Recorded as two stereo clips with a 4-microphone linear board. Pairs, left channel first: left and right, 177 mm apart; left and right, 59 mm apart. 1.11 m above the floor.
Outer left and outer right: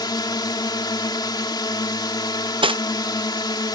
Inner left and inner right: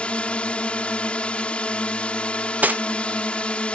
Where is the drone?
25° left (ahead or behind).